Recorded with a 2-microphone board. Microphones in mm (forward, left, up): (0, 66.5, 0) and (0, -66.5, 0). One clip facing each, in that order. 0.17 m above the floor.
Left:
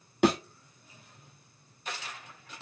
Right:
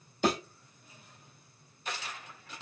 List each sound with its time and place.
0.2 s a thud: 75° left (ahead or behind), 1.4 m